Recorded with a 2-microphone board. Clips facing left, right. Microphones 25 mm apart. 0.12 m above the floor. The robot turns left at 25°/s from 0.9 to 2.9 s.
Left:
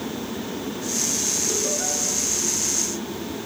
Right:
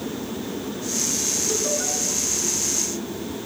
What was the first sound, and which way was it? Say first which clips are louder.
Laughter: right 1 dB; 10° right (ahead or behind).